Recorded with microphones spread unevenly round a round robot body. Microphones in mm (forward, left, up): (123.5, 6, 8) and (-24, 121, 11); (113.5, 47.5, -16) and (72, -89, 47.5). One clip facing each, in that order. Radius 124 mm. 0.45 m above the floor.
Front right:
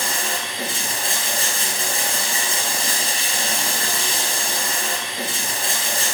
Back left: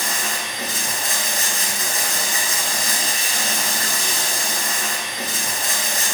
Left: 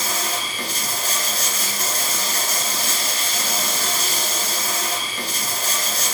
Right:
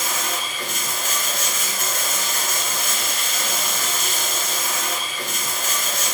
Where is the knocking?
I don't hear knocking.